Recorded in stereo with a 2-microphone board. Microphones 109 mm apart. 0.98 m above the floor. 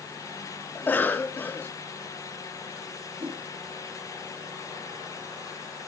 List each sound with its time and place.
0.8 s a cough: 15° left (ahead or behind), 1.0 m
3.2 s a whoosh: 50° right (ahead or behind), 2 m